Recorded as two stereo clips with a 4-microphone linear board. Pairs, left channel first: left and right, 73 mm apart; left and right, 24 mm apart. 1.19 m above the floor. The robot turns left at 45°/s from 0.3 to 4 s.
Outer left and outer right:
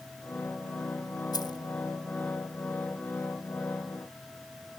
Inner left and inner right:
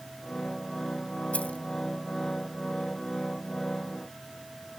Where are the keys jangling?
70° left (ahead or behind); by 1.6 s 80° left.